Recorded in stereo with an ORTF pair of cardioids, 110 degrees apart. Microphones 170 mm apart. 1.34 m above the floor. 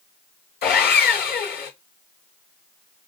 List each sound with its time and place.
0.6 s sawing: 65° left, 4.5 m